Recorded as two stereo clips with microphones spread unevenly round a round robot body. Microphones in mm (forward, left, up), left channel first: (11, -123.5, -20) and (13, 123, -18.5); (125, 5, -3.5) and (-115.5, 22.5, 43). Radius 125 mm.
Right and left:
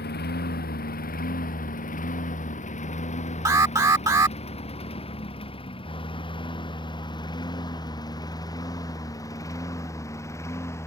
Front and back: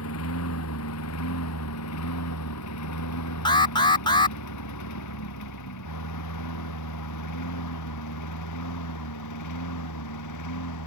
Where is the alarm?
25° left.